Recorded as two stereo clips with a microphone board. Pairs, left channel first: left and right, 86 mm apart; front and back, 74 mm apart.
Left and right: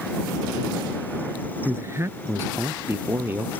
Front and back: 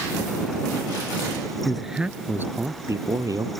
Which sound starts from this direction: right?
A man speaking, at 1.6 s.